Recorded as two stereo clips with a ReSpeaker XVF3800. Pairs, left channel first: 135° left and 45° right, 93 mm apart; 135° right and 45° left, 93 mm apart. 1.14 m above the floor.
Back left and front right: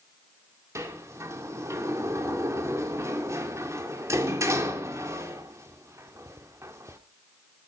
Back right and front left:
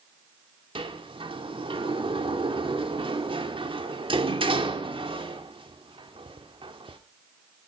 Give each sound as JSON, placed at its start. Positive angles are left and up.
{"t": 0.8, "sound": "a sliding door", "azimuth_deg": 15, "distance_m": 2.5}